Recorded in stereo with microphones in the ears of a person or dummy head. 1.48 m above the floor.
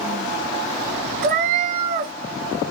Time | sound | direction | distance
1.2 | a cat meowing | 25° right (ahead or behind) | 0.7 m